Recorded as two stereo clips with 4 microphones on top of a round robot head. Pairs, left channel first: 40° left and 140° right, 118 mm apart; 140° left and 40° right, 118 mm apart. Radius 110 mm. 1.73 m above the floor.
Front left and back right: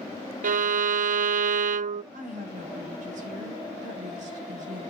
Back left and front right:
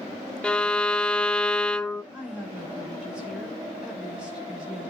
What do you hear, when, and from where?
0.4 s a violin: 135° right, 0.6 m
2.1 s a woman speaking: 120° right, 6.5 m